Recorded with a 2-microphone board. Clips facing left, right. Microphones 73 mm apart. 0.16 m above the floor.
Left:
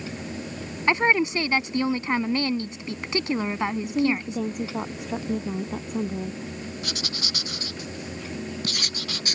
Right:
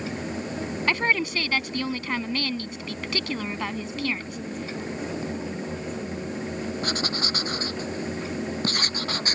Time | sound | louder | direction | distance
0.9 | a woman speaking | left 4 dB | 25° left (ahead or behind) | ?
3.8 | a woman speaking | left 6 dB | 75° left (ahead or behind) | ?
6.8 | writing | right 5 dB | 40° right (ahead or behind) | ?